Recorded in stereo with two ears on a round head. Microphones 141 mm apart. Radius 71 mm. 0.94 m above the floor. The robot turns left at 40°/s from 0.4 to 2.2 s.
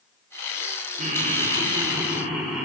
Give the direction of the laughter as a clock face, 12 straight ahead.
4 o'clock.